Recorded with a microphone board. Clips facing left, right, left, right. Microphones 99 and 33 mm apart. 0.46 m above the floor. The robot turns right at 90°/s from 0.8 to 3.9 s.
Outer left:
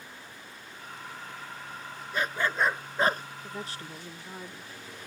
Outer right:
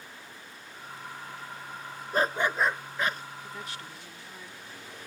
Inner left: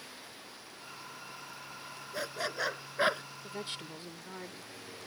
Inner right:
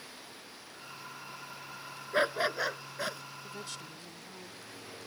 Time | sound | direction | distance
2.1 | a dog barking | 45° right | ?
3.4 | a woman speaking | 35° left | ?